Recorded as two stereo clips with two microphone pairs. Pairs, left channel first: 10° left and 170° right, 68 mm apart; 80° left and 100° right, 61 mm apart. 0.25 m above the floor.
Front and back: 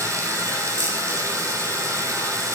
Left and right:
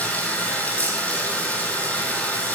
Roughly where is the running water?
Behind left.